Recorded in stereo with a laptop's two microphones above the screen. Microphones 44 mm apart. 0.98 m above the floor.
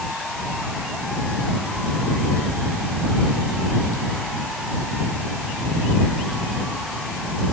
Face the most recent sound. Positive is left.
No sound to turn to.